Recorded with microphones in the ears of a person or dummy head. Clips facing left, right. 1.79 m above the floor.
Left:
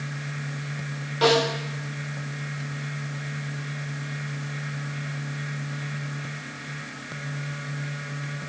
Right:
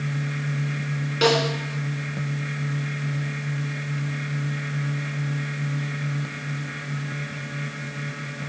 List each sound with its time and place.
1.2 s a snare drum: 30° right (ahead or behind), 2.0 m